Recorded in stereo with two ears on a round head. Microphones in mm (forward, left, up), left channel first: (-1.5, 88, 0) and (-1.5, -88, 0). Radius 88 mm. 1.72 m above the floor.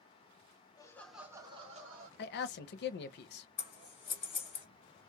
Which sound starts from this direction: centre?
Laughter, at 0.8 s.